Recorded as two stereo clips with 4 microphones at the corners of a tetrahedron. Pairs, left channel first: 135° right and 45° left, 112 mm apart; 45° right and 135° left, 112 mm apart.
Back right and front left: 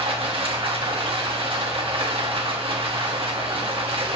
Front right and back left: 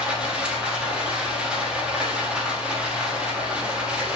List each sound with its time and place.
0.0 s running water: 55° left, 0.9 m